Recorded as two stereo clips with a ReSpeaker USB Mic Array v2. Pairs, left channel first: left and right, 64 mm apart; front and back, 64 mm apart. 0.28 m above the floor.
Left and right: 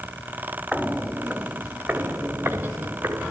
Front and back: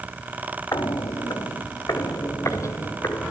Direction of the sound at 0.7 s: 10° right.